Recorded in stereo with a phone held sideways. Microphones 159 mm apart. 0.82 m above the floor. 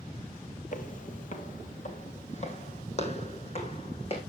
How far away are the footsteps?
About 1.3 m.